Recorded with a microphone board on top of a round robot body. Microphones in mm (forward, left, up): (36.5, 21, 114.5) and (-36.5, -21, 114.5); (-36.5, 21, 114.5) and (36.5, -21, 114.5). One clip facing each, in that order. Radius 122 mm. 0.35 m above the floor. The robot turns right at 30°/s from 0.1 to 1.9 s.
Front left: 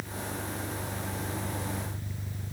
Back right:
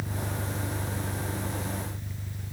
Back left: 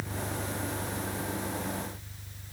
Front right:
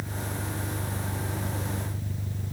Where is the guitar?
I don't hear a guitar.